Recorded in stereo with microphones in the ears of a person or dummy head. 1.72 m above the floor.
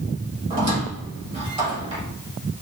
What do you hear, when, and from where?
0.5 s a squeak: 25° right (ahead or behind), 1.2 m